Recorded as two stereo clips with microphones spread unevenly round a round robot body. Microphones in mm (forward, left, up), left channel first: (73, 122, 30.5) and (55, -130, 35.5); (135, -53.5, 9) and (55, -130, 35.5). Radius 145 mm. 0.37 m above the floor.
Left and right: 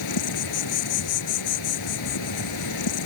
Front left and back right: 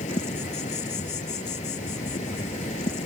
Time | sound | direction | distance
0.0 | an insect | 95° left | ?